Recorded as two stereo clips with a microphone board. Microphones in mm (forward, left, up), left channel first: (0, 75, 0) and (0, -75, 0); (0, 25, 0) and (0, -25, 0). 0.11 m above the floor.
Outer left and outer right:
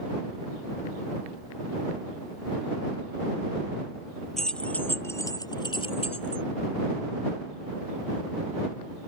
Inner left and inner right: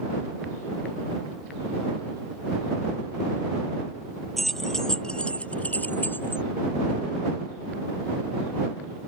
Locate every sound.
4.4 s keys jangling: centre (ahead or behind); by 6.4 s 45° left (ahead or behind)